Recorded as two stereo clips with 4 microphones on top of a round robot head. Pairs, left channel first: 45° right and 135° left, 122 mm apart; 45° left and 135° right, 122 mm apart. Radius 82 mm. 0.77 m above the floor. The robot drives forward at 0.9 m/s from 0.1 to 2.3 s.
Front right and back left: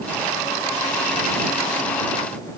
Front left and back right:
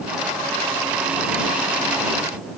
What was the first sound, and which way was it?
Only background noise.